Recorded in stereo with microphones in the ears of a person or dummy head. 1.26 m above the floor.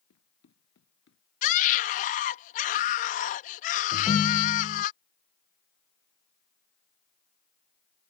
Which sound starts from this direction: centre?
A ringtone, at 3.9 s.